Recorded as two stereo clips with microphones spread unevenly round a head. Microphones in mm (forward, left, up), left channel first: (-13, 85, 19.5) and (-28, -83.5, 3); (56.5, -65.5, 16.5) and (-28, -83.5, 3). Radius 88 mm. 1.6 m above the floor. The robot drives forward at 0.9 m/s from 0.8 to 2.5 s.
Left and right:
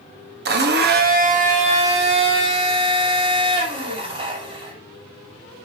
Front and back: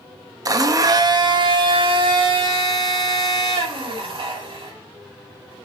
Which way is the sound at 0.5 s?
120° right.